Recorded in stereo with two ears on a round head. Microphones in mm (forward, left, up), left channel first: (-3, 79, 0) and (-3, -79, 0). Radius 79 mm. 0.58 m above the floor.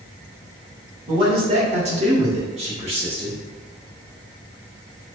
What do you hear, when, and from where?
1.1 s a man speaking: 30° right (ahead or behind), 1.4 m